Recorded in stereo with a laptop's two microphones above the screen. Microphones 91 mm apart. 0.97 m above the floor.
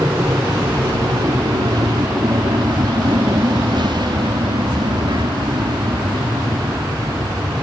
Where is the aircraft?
35° right (ahead or behind); by 7.6 s 40° right (ahead or behind).